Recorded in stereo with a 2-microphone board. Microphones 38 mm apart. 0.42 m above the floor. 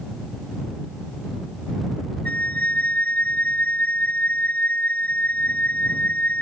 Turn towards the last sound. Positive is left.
turn(degrees=45)  # may be behind; listen again after turning